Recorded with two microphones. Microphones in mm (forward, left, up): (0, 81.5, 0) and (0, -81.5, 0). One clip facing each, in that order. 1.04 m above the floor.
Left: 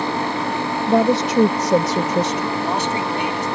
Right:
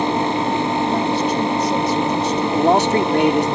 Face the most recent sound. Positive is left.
turn(degrees=-65)  # may be behind; listen again after turning